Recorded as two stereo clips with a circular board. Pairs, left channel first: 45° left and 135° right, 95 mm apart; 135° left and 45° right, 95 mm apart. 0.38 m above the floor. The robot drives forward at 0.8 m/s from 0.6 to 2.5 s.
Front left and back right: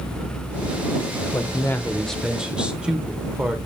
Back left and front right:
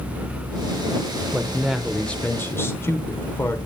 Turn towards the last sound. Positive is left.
turn(degrees=155)